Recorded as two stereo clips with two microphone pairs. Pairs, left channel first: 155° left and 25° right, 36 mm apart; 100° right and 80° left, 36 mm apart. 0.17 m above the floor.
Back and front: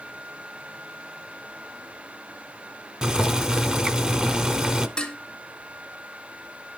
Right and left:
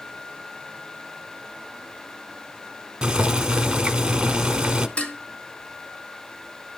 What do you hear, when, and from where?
3.0 s boiling: 30° left, 0.6 m
5.0 s dishes clattering: 145° right, 1.2 m